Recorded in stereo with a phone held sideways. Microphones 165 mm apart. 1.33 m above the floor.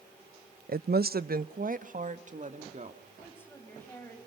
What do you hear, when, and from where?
0.7 s a woman speaking: 60° right (ahead or behind), 0.5 m; by 3.0 s 45° right (ahead or behind), 2.5 m
3.2 s a woman speaking: 15° left (ahead or behind), 6.5 m